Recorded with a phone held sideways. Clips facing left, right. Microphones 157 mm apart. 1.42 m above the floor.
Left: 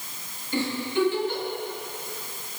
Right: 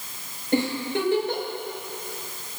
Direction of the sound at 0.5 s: 75° right (ahead or behind).